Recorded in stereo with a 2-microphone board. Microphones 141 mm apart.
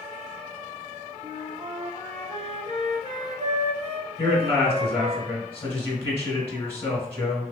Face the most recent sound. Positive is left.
turn(degrees=15)  # may be behind; listen again after turning